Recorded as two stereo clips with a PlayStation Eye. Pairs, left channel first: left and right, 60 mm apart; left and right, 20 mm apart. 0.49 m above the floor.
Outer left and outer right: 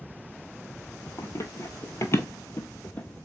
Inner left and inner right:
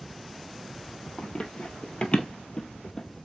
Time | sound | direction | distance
1.2 | running footsteps | 55° left (ahead or behind) | 0.8 m